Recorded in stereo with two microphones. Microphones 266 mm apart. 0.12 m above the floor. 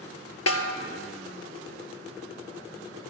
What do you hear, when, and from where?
0.5 s a snare drum: 65° left (ahead or behind), 1.0 m